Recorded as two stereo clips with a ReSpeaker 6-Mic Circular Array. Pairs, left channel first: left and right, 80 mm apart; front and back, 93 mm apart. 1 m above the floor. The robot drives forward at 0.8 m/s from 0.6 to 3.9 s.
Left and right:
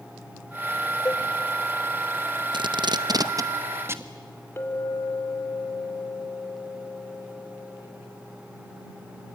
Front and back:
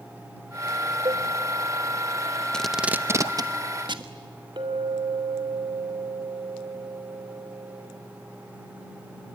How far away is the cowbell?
About 1.0 m.